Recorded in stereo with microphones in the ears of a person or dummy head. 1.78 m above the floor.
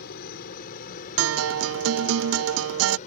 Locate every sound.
0.0 s a helicopter: 55° left (ahead or behind); by 3.1 s 45° left (ahead or behind)
1.2 s a guitar: 80° right